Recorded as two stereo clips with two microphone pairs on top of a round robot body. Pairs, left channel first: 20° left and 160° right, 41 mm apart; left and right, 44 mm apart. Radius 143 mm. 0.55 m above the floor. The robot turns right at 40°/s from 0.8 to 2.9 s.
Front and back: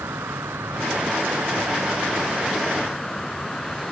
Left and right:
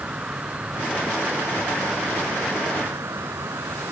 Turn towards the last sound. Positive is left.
turn(degrees=-65)